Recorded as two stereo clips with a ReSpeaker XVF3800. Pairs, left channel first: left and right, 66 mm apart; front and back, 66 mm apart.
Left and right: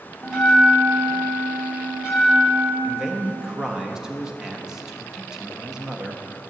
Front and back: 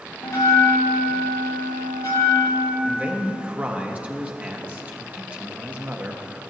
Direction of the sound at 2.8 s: 160° right.